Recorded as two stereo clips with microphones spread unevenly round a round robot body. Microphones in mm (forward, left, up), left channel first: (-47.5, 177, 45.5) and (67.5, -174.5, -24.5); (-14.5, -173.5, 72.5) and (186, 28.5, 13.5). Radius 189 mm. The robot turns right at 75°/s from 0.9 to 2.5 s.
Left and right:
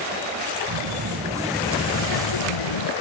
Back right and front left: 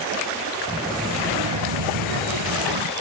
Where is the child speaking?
30° right; by 2.9 s 90° left.